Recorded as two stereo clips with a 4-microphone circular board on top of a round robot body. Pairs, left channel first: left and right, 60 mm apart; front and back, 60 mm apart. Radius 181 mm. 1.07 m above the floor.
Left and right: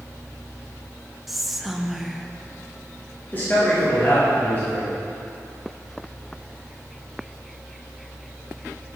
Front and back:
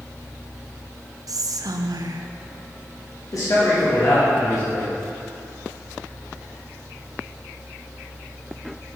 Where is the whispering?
Straight behind, 0.6 m.